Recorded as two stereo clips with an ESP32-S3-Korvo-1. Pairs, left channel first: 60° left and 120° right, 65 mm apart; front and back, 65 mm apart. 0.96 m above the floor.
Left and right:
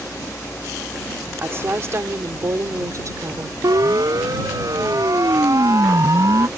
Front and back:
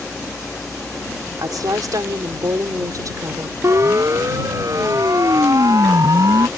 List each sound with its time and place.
1.4 s a woman speaking: 170° right; by 3.5 s 150° right
3.6 s a siren: 140° right; by 6.5 s 155° right